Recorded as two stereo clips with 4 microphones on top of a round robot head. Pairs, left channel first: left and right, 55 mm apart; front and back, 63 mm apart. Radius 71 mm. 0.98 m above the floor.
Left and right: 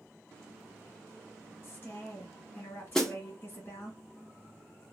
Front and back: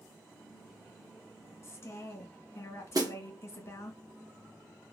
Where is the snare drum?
170° left, 0.9 m.